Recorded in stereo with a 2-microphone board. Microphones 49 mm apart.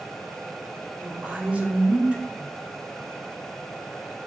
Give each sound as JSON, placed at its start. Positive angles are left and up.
{"t": 1.0, "sound": "a woman speaking", "side_deg": -30, "distance_m": 2.5}